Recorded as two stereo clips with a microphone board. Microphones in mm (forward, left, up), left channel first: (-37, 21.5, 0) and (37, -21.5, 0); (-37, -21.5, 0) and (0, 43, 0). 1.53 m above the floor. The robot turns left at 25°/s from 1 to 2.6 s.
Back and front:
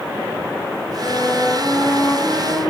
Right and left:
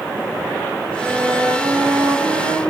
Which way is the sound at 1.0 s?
100° left.